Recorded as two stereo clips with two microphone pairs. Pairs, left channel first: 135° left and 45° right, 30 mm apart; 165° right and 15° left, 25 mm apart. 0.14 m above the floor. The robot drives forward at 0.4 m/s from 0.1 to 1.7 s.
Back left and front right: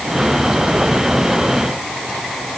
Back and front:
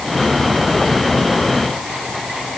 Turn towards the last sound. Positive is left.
No sound to turn to.